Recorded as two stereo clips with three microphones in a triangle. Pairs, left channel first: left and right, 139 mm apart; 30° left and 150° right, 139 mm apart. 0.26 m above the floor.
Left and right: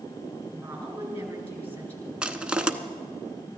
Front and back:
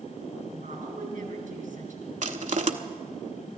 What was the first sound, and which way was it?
A woman speaking, 165° right.